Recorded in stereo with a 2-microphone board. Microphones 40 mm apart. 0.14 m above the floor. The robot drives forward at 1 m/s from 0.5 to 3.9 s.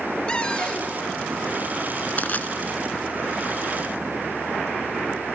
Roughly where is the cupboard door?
Centre.